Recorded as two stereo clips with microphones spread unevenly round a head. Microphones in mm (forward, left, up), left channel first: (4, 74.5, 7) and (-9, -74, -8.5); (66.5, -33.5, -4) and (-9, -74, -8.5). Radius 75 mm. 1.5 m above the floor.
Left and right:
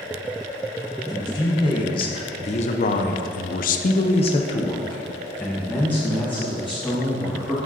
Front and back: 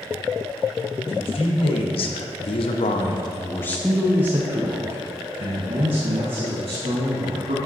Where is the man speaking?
20° left, 1.5 m; by 7.6 s 170° left, 2.5 m.